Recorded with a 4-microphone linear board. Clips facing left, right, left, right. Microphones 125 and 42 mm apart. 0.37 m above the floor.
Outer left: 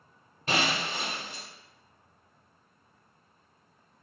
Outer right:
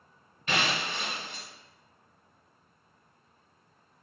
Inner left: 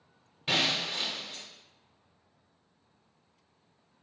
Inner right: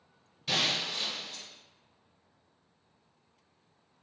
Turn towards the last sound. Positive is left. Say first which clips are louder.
# outer left 1 dB, inner left 2 dB
turn(degrees=35)  # may be behind; listen again after turning